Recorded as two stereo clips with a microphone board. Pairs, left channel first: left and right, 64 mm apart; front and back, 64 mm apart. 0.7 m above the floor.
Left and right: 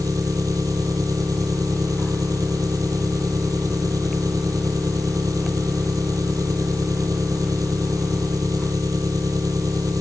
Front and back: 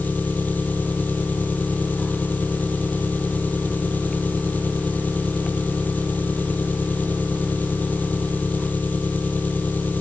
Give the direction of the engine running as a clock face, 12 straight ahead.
2 o'clock.